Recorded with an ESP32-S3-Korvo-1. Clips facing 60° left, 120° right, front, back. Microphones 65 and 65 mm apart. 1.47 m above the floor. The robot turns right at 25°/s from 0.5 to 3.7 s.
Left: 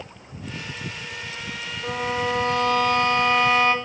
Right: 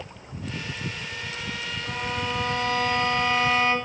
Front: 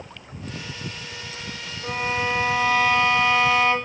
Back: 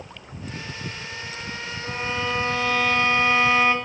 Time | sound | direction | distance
1.8 | a violin | 60° left | 5 m